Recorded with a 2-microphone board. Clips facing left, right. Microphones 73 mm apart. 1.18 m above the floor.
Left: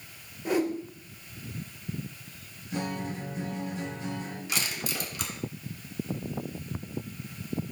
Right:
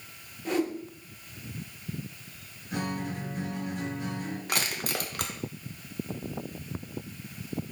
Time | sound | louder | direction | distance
0.5 | a whoosh | left 2 dB | 10° left (ahead or behind) | 1.4 m
2.7 | a guitar | even | 55° right (ahead or behind) | 3.5 m
4.5 | crushing | right 2 dB | 55° right (ahead or behind) | 1.1 m